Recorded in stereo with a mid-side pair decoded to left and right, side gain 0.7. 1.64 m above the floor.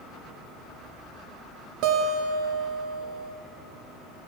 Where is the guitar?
65° right, 0.7 m.